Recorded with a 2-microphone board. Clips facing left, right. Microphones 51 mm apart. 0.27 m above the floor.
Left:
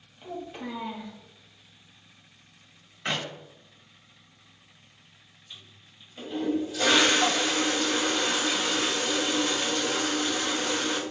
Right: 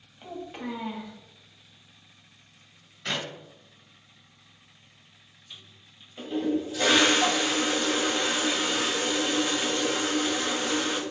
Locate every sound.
0.2 s a child speaking: 20° right (ahead or behind), 1.1 m
3.0 s a clap: 30° left (ahead or behind), 1.1 m
5.5 s a toilet flushing: 10° right (ahead or behind), 1.2 m